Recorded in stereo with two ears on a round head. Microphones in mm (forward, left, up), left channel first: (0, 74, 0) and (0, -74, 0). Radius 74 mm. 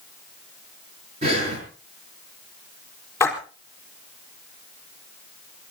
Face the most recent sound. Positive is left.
turn(degrees=10)  # may be behind; listen again after turning